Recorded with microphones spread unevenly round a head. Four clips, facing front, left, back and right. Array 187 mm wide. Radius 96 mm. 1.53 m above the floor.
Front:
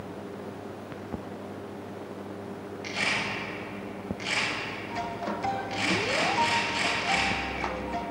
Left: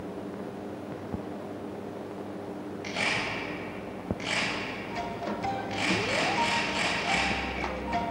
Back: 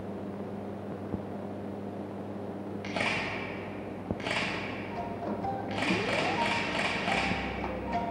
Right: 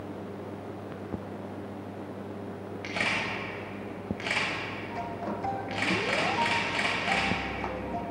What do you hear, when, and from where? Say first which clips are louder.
2.8 s a camera shutter: even, front 1 dB; 175° right, 2.5 m